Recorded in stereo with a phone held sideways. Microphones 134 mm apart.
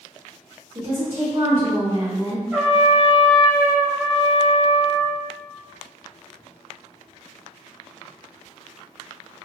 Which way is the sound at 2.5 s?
15° right (ahead or behind).